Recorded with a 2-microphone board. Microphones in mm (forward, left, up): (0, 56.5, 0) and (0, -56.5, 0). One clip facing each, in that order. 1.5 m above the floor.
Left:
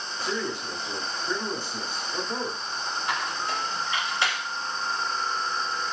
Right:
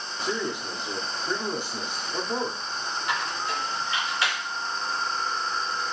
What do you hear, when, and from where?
0.2 s a man speaking: 15° right (ahead or behind), 1.2 m
3.1 s a squeak: 25° left (ahead or behind), 2.5 m